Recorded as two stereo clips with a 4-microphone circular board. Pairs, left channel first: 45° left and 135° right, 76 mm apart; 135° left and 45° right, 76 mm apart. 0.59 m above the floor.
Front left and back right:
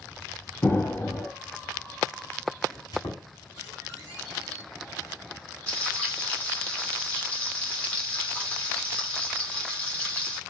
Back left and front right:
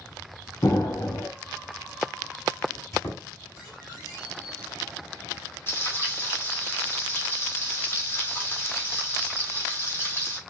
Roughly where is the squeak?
Left.